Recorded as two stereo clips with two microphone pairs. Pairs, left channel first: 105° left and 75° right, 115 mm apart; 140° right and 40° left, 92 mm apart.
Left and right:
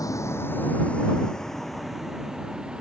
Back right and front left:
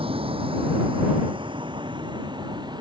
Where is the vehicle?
40° left; by 2.8 s 5° left.